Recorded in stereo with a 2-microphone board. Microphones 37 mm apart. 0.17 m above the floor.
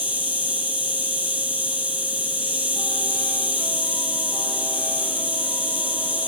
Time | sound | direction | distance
0.0 | an insect | 40° right (ahead or behind) | 2.5 m